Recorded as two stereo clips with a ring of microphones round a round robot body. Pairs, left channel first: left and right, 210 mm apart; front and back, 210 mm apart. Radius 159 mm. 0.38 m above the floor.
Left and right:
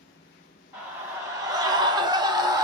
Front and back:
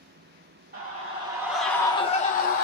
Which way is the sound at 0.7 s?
165° right.